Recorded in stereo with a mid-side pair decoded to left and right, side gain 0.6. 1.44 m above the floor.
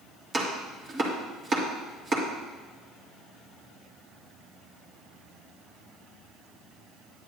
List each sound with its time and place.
0.3 s chopping: 30° right, 2.5 m